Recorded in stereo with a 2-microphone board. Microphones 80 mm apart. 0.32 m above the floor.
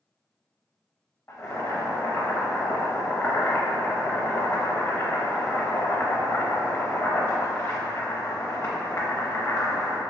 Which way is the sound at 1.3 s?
35° left (ahead or behind).